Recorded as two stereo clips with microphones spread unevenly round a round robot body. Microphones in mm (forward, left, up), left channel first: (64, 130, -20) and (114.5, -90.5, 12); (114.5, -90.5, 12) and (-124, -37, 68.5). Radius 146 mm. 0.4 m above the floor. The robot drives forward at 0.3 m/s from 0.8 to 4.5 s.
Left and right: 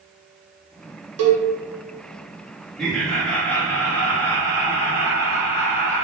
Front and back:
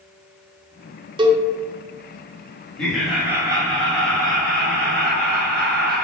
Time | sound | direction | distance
1.2 | a cowbell | 115° right | 0.5 m
2.8 | laughter | 35° left | 0.8 m